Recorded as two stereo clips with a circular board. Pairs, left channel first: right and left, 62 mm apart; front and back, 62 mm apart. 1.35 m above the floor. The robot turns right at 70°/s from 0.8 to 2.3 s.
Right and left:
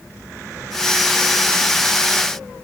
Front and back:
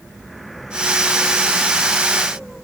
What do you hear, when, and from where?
Only background noise.